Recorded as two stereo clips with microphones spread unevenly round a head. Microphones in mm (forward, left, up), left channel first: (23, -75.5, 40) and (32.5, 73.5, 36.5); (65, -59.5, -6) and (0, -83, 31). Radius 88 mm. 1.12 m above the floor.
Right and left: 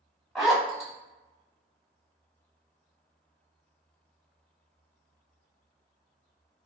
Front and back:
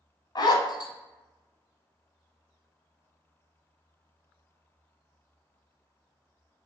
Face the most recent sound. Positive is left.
turn(degrees=0)